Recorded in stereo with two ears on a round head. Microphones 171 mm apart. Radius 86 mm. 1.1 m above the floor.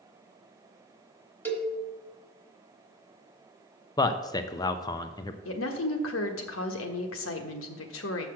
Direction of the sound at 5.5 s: 80° left.